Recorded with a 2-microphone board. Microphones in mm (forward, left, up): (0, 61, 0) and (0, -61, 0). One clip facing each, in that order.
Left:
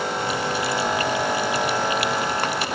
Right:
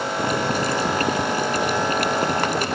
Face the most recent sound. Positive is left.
turn(degrees=-45)  # may be behind; listen again after turning